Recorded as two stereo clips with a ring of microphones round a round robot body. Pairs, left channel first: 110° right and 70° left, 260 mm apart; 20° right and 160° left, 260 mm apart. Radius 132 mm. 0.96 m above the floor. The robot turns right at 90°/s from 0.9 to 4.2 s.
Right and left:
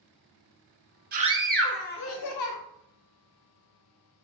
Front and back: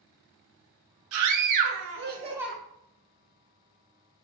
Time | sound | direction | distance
1.1 | a scream | 120° left | 0.7 m